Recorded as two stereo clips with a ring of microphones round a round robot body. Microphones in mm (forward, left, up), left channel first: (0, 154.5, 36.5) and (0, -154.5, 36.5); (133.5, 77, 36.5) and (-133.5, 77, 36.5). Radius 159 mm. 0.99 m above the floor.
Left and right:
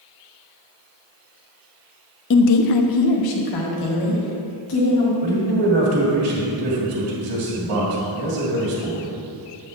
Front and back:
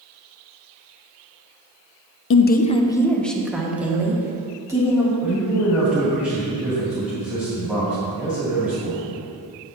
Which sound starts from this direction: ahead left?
A woman speaking, at 2.3 s.